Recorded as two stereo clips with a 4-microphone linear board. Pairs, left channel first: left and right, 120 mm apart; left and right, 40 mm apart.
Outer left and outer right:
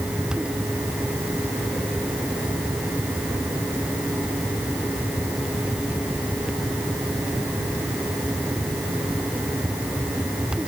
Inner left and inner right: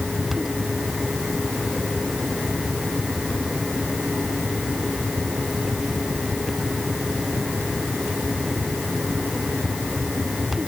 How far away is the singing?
I don't hear singing.